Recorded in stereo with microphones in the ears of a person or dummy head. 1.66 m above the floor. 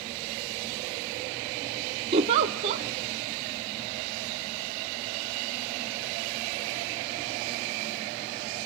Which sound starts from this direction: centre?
A giggle, at 2.1 s.